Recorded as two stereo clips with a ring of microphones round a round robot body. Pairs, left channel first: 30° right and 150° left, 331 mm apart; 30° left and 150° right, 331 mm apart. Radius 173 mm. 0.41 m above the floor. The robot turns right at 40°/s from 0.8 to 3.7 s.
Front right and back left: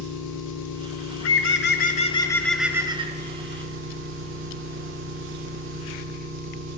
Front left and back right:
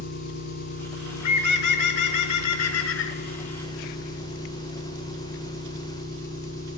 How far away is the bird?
About 1.0 m.